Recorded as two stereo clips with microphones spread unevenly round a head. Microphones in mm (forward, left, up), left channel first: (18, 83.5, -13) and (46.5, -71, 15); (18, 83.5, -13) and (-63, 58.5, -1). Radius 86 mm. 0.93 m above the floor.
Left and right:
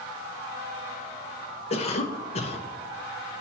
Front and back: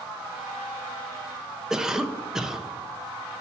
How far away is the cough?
About 0.5 m.